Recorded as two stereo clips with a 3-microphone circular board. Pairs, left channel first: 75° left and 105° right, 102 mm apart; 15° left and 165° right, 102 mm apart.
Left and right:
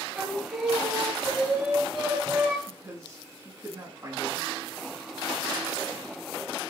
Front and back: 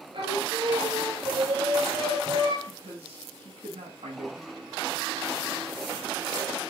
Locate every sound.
0.1 s singing: 175° left, 3 m
2.7 s a man speaking: 165° right, 4 m